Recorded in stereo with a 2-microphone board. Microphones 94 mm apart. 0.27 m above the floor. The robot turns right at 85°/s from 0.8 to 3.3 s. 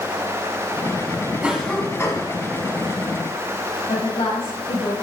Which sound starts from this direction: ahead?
A cough, at 1.4 s.